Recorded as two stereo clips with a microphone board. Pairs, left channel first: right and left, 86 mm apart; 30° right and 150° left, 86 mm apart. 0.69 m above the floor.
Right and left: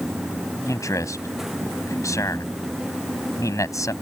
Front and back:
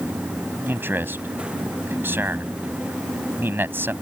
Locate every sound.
0.7 s a man speaking: 145° right